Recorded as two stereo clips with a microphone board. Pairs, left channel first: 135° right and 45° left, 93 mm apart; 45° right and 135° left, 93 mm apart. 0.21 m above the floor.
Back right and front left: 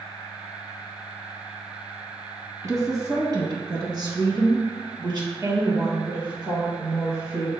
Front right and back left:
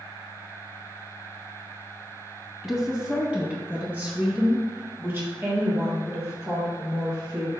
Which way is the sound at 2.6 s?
50° left.